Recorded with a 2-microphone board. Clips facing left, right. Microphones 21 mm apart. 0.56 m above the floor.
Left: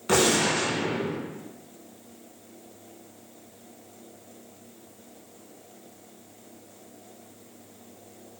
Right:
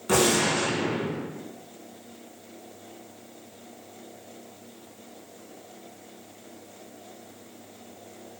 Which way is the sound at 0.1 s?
25° left (ahead or behind).